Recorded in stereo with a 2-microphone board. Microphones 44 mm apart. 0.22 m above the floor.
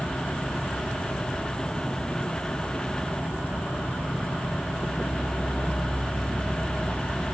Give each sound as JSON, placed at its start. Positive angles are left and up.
{"t": 0.0, "sound": "an insect", "side_deg": 55, "distance_m": 1.8}